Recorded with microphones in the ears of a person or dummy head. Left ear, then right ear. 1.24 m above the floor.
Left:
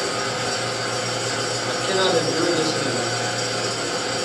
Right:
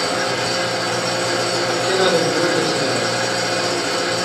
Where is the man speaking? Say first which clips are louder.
Right 2 dB; 15° left (ahead or behind), 2.5 m.